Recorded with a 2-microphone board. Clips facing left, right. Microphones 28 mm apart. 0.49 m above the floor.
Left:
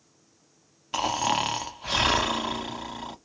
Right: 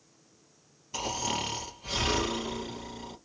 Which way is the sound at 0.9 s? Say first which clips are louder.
Left 7 dB; 75° left (ahead or behind).